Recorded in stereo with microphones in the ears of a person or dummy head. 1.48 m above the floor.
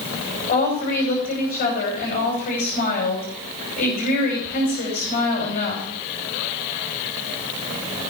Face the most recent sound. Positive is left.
turn(degrees=45)  # may be behind; listen again after turning